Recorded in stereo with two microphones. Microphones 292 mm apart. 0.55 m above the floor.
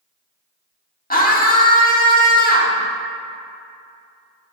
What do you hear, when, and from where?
1.1 s a scream: 30° left (ahead or behind), 1.3 m